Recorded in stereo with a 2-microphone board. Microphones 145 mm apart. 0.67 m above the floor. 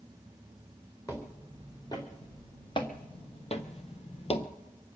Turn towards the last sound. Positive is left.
turn(degrees=40)  # may be behind; listen again after turning